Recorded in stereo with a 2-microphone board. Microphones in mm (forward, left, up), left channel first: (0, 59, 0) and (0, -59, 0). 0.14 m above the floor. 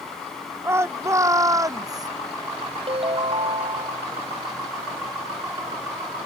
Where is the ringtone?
55° right (ahead or behind).